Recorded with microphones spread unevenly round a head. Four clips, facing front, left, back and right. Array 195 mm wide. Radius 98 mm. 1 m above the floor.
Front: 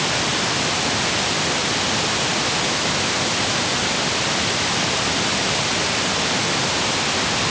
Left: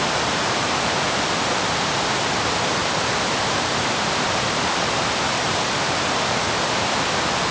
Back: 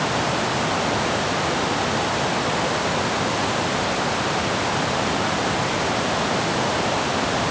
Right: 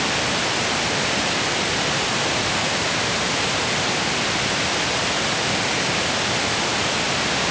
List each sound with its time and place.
Only background noise.